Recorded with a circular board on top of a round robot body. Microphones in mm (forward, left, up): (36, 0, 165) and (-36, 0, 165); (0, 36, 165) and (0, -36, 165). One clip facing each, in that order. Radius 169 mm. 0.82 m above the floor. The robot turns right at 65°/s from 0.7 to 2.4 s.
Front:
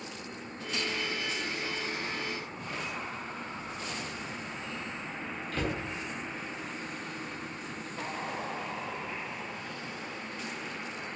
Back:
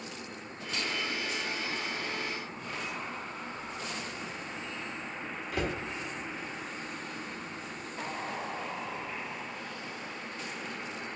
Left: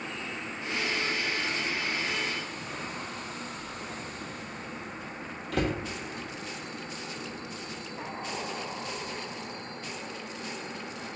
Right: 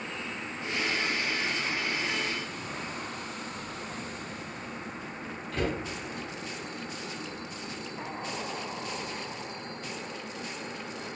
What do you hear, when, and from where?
5.5 s a cupboard door: 105° left, 1.0 m